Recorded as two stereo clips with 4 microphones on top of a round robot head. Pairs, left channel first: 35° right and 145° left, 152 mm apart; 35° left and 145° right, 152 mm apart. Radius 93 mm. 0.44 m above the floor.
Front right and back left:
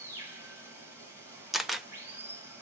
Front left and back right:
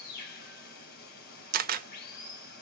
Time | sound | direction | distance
0.0 | running water | 70° left | 2 m
1.5 | a camera shutter | 130° right | 0.7 m